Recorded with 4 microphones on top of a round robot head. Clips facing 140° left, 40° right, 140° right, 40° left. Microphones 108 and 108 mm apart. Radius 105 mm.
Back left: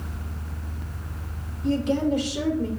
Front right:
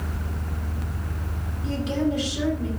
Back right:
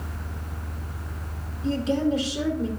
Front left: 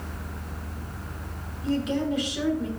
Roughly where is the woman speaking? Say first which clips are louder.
Back left 2 dB, back right 2 dB; behind.